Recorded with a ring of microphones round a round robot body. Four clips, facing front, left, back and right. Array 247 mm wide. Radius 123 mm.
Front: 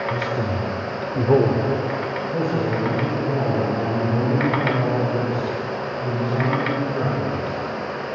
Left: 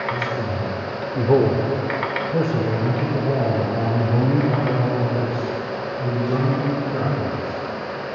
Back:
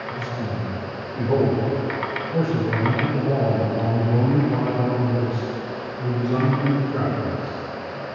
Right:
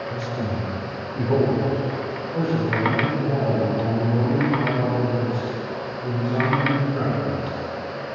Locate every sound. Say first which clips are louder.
0.1 s a man speaking: left 3 dB, front 5 dB; 10° left, 2 m; by 7.6 s 125° left, 7 m